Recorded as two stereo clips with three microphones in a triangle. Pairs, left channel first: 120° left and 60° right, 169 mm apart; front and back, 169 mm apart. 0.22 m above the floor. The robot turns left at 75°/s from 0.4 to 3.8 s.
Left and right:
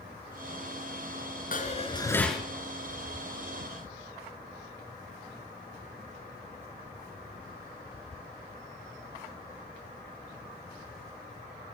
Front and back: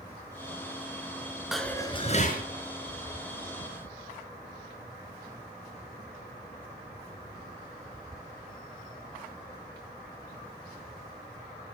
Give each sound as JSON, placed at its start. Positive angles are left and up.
{"t": 1.5, "sound": "dishes clattering", "azimuth_deg": 95, "distance_m": 1.7}